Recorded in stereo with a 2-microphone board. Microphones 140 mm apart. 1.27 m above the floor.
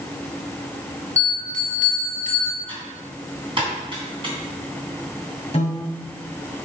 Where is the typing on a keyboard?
40° right (ahead or behind), 3.5 m.